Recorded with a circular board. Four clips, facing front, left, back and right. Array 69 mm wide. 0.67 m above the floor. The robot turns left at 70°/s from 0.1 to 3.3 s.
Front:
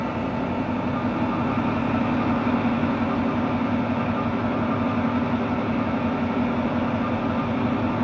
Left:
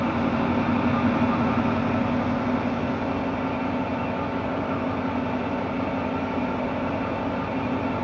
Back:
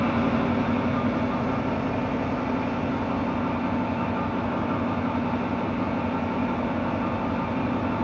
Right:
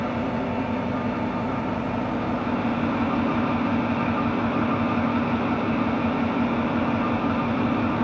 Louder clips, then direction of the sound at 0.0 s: Left 2 dB, back 3 dB; 150° left.